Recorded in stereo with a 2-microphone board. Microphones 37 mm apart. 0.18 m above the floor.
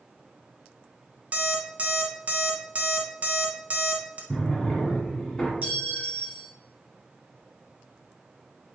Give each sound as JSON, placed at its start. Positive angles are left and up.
{"t": 1.3, "sound": "an alarm clock", "side_deg": -45, "distance_m": 0.6}
{"t": 4.3, "sound": "a drawer", "side_deg": 10, "distance_m": 1.1}
{"t": 5.6, "sound": "a clink", "side_deg": -45, "distance_m": 0.8}